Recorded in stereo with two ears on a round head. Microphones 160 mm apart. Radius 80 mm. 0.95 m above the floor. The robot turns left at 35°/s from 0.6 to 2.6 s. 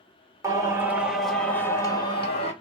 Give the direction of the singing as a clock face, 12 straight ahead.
5 o'clock.